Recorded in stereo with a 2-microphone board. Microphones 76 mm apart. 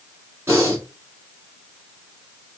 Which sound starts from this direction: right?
Breathing, at 0.5 s.